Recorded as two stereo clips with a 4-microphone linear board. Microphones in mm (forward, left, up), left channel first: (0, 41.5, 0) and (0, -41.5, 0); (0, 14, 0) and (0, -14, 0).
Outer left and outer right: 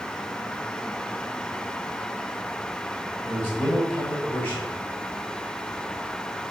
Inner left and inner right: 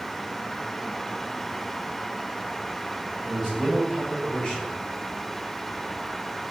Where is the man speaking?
25° left (ahead or behind), 3.5 m.